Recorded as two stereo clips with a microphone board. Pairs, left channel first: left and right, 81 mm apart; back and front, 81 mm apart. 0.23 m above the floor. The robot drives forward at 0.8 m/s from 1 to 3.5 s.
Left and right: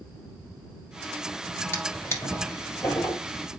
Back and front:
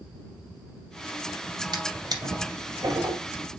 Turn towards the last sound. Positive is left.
turn(degrees=55)